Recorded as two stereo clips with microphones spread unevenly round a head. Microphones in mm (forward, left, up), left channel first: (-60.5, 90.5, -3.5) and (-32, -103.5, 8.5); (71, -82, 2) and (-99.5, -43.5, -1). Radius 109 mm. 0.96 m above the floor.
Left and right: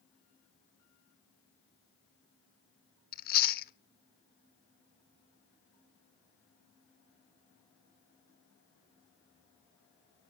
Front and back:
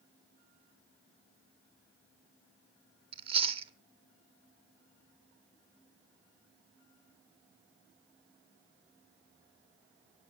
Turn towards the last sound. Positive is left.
turn(degrees=115)